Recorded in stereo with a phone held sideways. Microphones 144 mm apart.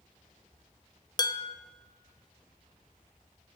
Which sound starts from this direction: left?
Dishes clattering, at 1.2 s.